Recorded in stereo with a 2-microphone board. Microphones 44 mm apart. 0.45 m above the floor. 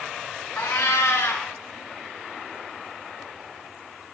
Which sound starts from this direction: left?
A cat meowing, at 0.6 s.